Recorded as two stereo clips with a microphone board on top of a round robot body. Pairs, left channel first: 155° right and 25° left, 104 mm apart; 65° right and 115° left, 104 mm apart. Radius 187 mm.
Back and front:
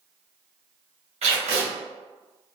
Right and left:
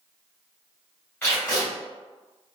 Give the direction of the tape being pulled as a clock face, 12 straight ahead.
12 o'clock.